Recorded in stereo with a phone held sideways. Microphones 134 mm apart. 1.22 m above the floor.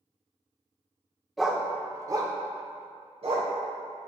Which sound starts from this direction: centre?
A dog barking, at 1.4 s.